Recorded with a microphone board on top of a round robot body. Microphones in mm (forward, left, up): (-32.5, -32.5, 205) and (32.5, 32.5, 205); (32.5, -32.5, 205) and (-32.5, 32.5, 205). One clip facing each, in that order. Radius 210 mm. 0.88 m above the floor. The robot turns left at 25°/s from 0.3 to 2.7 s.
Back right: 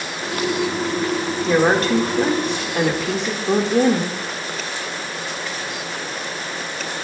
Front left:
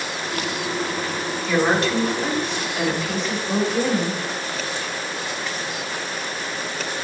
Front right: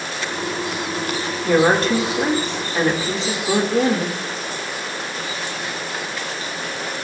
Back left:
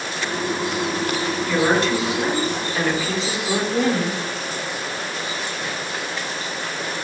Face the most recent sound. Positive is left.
turn(degrees=-110)